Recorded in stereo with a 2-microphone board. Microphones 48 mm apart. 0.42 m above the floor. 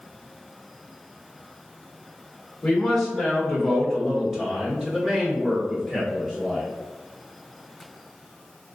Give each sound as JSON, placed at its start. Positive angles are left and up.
{"t": 2.6, "sound": "a man speaking", "side_deg": 5, "distance_m": 1.6}